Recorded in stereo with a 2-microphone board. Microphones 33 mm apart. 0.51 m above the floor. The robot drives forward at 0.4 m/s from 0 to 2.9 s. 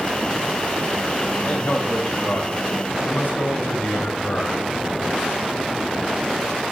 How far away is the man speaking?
About 3 m.